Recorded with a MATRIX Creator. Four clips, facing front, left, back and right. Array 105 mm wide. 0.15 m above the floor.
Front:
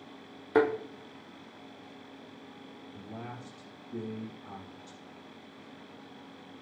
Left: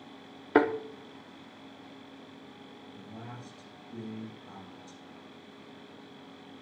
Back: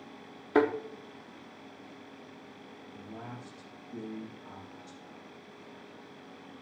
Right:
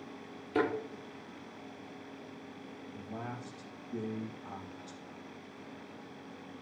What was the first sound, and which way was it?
A thud, 85° left.